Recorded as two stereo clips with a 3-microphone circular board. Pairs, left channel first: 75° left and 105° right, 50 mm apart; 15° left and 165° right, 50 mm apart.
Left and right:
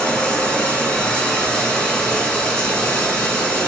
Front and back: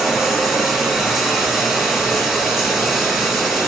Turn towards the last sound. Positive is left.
turn(degrees=125)